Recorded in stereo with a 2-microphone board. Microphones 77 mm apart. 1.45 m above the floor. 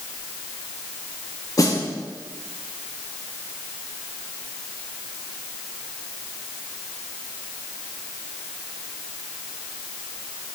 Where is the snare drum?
50° left (ahead or behind), 1.1 m.